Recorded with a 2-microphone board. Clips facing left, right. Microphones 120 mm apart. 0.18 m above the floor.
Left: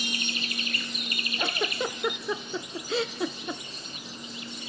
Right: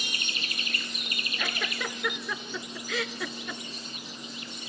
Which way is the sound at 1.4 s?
30° left (ahead or behind).